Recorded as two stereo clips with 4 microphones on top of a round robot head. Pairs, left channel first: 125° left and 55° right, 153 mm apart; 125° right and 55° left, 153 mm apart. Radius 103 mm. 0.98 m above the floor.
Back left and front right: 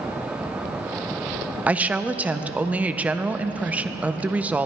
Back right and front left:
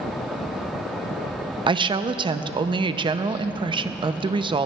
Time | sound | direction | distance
1.7 | a woman speaking | 20° left | 0.5 m